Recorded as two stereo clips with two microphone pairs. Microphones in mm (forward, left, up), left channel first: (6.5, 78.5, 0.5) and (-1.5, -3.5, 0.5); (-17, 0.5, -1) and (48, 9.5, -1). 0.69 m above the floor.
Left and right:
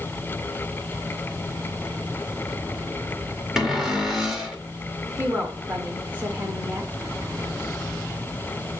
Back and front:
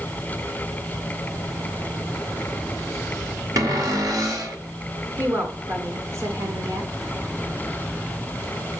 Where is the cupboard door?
10° right, 1.9 m.